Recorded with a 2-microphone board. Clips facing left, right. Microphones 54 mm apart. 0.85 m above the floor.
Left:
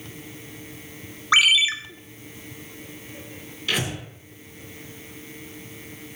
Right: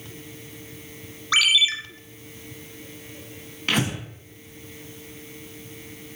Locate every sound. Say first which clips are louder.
1.3 s a ringtone: left 2 dB; 25° left (ahead or behind), 0.7 m
3.7 s breathing: right 2 dB; 50° right (ahead or behind), 2.5 m